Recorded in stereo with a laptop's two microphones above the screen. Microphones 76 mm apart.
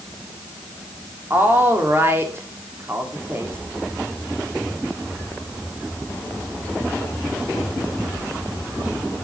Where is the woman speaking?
35° right (ahead or behind), 2.5 m.